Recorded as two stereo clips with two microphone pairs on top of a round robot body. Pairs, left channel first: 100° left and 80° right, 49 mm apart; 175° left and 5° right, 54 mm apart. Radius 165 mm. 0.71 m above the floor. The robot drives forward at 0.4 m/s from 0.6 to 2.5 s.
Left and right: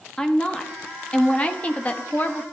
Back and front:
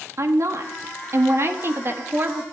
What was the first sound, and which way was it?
A woman speaking, 30° left.